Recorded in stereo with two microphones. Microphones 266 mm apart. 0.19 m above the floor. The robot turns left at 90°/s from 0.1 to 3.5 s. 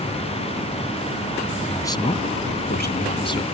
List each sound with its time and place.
1.6 s a man speaking: straight behind; by 3.5 s 15° left